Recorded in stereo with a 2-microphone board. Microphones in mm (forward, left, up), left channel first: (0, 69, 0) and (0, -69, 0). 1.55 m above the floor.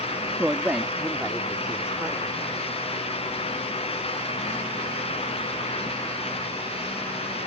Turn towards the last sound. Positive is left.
turn(degrees=-5)  # may be behind; listen again after turning